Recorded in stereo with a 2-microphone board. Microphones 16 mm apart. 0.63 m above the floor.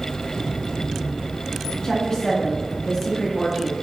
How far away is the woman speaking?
About 1.0 m.